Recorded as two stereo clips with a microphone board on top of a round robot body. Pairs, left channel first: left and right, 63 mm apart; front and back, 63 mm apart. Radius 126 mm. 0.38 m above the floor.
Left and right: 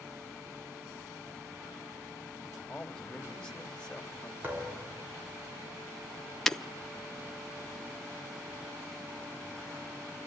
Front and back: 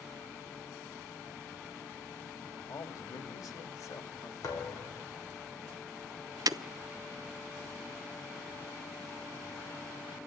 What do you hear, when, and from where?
2.7 s a man speaking: 15° left, 3 m
4.4 s a thud: 30° right, 6 m
6.5 s breaking glass: 170° left, 0.9 m